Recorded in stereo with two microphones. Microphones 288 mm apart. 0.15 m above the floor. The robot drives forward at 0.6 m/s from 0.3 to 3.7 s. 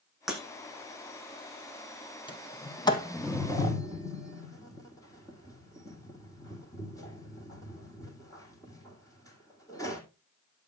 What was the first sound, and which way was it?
Breaking glass, centre (ahead or behind).